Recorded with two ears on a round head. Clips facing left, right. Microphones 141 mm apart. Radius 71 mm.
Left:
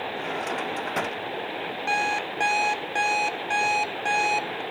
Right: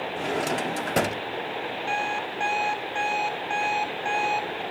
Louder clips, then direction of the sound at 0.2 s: Right 5 dB; 40° right (ahead or behind).